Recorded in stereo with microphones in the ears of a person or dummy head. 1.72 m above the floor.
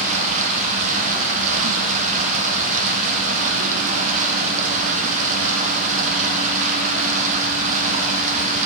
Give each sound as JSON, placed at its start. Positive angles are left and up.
{"t": 0.0, "sound": "running water", "side_deg": -45, "distance_m": 1.0}